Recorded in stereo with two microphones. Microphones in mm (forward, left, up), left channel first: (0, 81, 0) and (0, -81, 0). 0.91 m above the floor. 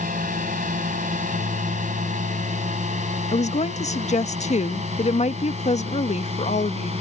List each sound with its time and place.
0.0 s a drone: 55° right (ahead or behind); by 7.0 s 40° right (ahead or behind)
3.3 s a woman speaking: 45° left (ahead or behind)